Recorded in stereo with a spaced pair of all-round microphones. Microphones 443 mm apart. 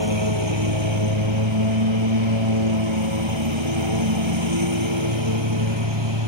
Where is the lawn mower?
70° right (ahead or behind); by 6.3 s 65° right (ahead or behind).